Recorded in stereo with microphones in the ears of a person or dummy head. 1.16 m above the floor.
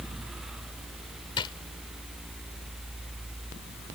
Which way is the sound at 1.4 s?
25° left (ahead or behind).